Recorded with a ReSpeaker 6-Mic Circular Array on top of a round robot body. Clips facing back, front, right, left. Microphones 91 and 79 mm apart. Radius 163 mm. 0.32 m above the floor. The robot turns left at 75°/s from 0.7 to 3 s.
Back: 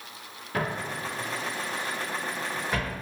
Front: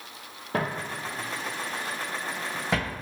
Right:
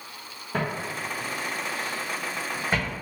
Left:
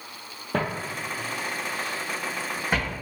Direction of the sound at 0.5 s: 50° left.